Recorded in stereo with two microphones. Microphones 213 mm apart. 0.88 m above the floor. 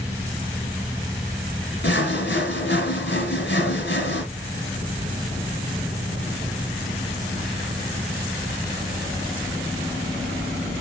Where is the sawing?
55° left (ahead or behind), 2.5 m.